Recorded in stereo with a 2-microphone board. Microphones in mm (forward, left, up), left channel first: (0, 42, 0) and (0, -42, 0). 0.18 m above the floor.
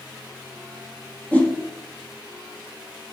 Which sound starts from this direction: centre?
A whoosh, at 1.3 s.